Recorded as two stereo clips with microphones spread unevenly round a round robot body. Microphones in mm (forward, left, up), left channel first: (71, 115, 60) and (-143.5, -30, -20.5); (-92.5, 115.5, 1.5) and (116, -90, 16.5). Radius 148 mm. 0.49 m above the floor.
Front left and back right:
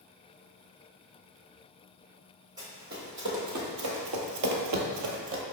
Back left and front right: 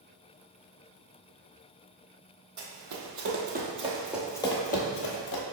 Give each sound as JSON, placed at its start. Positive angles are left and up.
{"t": 2.6, "sound": "running footsteps", "azimuth_deg": -75, "distance_m": 1.1}